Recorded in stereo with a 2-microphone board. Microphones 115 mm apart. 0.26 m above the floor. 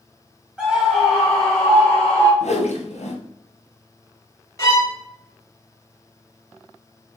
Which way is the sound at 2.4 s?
80° left.